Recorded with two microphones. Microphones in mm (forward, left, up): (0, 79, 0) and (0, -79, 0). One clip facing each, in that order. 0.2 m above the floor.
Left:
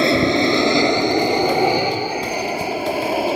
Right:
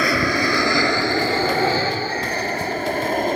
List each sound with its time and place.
0.0 s an aircraft: 25° left (ahead or behind); by 3.4 s 5° left (ahead or behind)